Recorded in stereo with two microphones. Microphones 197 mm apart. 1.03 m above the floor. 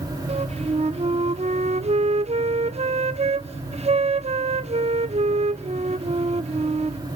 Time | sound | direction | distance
0.3 | a flute | 35° right (ahead or behind) | 0.6 m